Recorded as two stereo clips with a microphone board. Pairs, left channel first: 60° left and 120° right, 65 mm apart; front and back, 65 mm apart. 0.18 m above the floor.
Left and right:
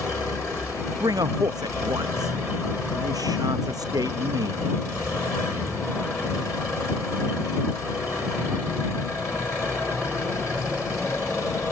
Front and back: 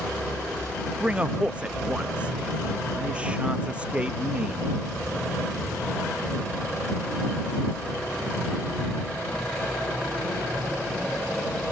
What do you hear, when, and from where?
1.0 s a man speaking: 105° right